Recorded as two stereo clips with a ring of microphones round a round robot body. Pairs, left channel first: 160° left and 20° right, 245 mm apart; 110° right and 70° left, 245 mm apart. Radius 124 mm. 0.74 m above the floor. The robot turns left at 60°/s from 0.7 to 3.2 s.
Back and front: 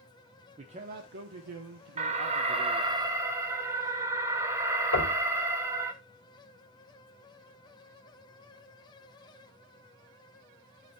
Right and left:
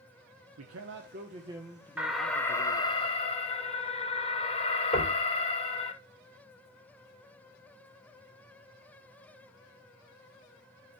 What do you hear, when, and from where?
0.6 s a man speaking: 40° left, 1.2 m; by 3.0 s 95° right, 1.2 m
2.0 s an alarm: 10° right, 1.4 m; by 5.9 s 85° right, 1.4 m
4.9 s knocking: straight behind, 3.5 m